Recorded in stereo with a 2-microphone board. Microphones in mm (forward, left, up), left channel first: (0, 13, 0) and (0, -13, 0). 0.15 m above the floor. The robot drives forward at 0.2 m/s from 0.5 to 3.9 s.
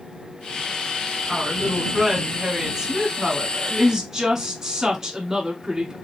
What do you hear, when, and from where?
1.3 s a woman speaking: 25° right (ahead or behind), 1.1 m; by 6.0 s 20° right (ahead or behind), 1.2 m